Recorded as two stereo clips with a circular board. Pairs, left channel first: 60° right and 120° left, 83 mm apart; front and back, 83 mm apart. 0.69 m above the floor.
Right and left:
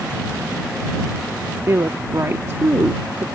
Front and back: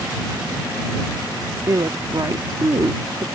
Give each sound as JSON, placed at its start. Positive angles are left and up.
{"t": 1.7, "sound": "a woman speaking", "azimuth_deg": 165}